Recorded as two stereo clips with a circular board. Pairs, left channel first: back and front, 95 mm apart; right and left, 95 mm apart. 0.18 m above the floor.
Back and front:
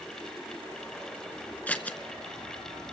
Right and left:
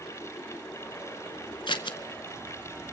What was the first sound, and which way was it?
Scissors, 105° right.